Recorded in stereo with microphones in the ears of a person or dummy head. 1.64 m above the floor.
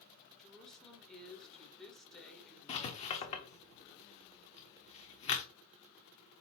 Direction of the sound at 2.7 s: 25° left (ahead or behind).